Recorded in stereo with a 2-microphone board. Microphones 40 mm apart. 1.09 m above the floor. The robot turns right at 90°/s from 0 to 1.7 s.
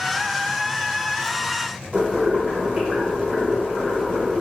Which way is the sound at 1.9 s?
15° right (ahead or behind).